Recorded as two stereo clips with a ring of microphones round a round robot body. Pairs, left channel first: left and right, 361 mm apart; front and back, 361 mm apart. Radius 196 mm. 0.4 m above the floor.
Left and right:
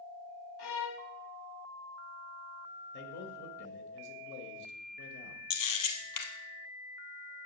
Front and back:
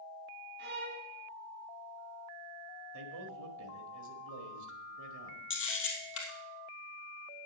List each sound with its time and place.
0.6 s a violin: 115° left, 1.6 m
2.9 s a man speaking: 150° left, 1.6 m
5.5 s a camera shutter: 60° left, 2 m